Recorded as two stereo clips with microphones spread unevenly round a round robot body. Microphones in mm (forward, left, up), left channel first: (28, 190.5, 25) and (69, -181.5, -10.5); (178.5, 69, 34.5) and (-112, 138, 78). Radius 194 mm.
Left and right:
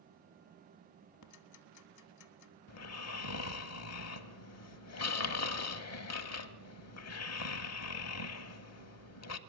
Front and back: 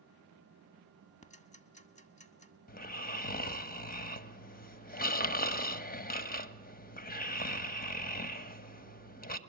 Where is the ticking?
55° left, 1.6 m.